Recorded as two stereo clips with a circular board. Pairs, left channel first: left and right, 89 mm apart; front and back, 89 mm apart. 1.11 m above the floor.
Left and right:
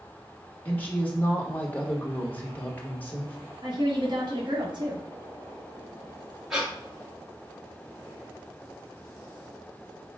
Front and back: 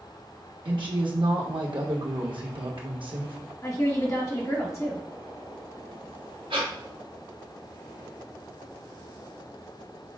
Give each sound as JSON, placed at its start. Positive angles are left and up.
{"t": 0.7, "sound": "a woman speaking", "azimuth_deg": 160, "distance_m": 1.3}
{"t": 3.6, "sound": "a woman speaking", "azimuth_deg": -55, "distance_m": 1.2}
{"t": 6.5, "sound": "breathing", "azimuth_deg": -175, "distance_m": 1.4}